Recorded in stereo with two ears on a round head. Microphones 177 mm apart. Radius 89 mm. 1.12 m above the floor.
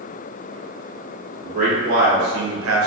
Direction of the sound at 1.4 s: 40° right (ahead or behind).